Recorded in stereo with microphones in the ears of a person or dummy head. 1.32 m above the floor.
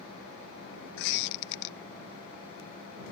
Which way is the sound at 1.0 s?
60° left (ahead or behind).